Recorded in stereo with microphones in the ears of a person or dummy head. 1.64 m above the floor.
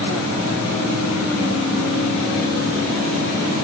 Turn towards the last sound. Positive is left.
No sound to turn to.